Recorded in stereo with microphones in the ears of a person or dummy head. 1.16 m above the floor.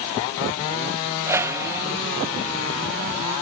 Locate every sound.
1.3 s a whoosh: 10° right (ahead or behind)